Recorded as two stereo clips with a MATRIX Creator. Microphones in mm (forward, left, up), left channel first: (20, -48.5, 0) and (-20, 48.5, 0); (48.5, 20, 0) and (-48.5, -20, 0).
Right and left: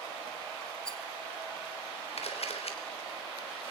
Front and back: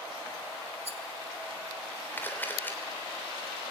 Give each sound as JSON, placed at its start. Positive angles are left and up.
{"t": 0.8, "sound": "a rattle", "azimuth_deg": -150, "distance_m": 1.8}
{"t": 2.2, "sound": "a camera shutter", "azimuth_deg": -50, "distance_m": 3.5}